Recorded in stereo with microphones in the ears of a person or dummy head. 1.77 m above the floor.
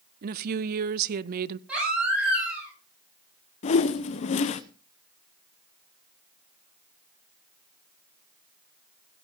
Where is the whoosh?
30° left (ahead or behind), 0.9 m.